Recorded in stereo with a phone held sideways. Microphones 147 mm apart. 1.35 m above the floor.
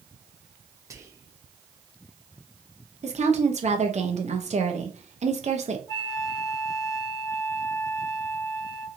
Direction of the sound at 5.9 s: 25° left (ahead or behind).